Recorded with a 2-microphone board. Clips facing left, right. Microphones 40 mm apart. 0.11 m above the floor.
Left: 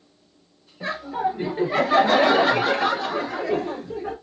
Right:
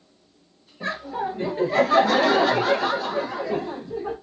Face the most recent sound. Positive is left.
turn(degrees=55)  # may be behind; listen again after turning